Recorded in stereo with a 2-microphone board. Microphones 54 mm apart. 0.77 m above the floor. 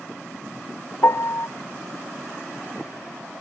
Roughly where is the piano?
Left.